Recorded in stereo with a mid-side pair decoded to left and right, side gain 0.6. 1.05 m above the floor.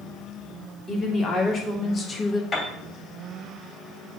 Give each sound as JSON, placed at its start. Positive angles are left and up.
{"t": 0.9, "sound": "a woman speaking", "azimuth_deg": 35, "distance_m": 2.5}
{"t": 2.5, "sound": "a piano", "azimuth_deg": 30, "distance_m": 2.5}